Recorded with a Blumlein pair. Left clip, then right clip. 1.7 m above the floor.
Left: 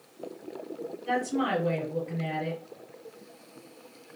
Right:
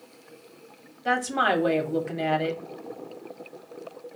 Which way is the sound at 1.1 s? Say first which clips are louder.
Right 6 dB; 45° right.